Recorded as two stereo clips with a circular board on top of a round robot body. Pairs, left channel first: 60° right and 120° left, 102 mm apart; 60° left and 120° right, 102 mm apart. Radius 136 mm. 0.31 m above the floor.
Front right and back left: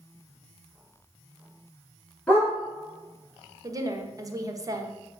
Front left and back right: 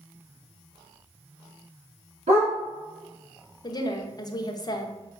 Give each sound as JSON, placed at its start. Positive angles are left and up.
{"t": 2.3, "sound": "a dog barking", "azimuth_deg": -140, "distance_m": 2.5}
{"t": 3.6, "sound": "a woman speaking", "azimuth_deg": 85, "distance_m": 1.1}